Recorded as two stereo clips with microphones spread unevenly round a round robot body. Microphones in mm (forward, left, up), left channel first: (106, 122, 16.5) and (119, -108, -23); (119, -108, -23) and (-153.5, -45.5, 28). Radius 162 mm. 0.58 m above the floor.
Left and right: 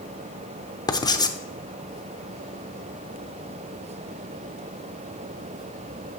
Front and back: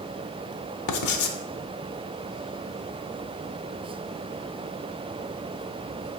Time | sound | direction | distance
0.9 | writing | 15° left | 0.7 m